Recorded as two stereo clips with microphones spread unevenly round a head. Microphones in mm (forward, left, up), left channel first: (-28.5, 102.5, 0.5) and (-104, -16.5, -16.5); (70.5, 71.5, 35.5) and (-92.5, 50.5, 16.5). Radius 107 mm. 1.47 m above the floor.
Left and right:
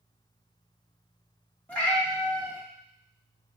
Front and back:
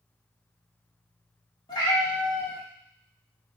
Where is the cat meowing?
5° left, 0.8 m.